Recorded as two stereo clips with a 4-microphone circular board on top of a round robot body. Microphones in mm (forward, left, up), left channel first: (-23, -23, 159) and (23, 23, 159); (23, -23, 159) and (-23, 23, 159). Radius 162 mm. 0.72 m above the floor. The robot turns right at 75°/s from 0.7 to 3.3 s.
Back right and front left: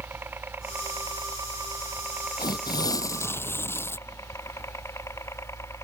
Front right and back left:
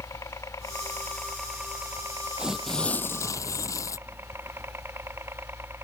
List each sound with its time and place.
0.0 s a helicopter: 10° right; by 5.8 s 175° right
2.4 s tearing paper: 150° right; by 4.0 s 80° right